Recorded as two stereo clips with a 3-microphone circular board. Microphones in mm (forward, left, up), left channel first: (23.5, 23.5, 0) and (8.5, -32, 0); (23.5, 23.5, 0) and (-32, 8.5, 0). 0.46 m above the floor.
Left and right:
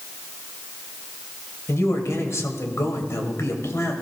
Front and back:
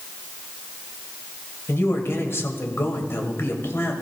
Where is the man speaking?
50° left, 2.5 m.